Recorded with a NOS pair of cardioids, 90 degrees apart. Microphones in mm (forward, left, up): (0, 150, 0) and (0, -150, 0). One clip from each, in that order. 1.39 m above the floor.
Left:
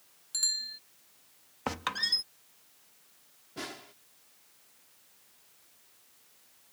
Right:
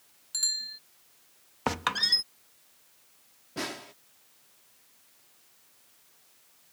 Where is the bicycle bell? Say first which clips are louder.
Right 1 dB; 5° right.